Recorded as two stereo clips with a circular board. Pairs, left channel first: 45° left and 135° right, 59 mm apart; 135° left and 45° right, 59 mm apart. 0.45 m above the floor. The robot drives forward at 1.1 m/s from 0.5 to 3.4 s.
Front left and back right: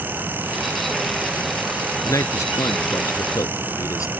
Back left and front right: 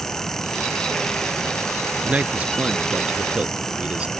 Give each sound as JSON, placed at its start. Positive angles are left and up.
{"t": 2.0, "sound": "a man speaking", "azimuth_deg": 20}